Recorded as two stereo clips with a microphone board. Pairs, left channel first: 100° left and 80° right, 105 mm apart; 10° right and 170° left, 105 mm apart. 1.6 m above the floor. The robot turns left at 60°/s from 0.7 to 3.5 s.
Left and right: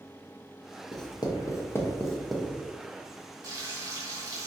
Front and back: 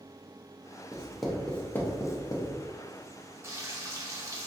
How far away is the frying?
About 0.9 m.